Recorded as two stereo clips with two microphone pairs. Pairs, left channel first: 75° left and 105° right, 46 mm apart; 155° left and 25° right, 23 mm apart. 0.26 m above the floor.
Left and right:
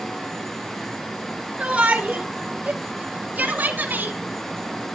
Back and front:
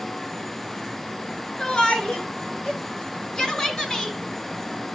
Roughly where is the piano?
No piano in this recording.